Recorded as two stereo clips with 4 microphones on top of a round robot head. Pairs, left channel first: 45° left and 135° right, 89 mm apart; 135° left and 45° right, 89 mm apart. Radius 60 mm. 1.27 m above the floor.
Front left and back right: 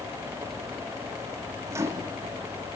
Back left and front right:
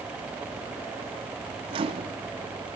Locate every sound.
1.7 s a microwave: 75° right, 2 m